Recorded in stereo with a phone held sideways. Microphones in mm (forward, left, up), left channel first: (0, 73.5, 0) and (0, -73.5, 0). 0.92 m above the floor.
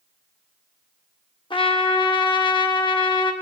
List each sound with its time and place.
1.5 s a trumpet: 35° left (ahead or behind), 0.6 m